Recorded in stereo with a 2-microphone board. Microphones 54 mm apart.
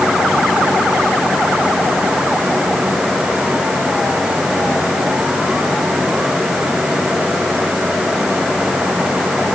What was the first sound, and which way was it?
Only background noise.